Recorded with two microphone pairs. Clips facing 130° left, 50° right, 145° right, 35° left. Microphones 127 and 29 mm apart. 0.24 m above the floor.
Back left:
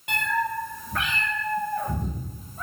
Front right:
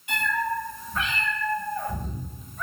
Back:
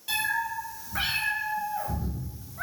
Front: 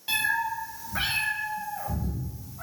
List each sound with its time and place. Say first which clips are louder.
0.1 s a cat meowing: back left 1 dB, front 2 dB; 105° left, 1.6 m; by 2.6 s 175° right, 1.1 m